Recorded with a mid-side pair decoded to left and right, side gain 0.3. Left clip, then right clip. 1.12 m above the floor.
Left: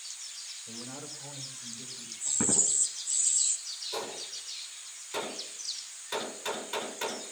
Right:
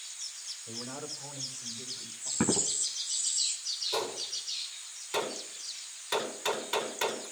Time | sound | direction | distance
0.7 | a man speaking | 55° right | 6.5 m
2.4 | footsteps | 50° right | 8 m
3.9 | a gunshot | 60° right | 9.5 m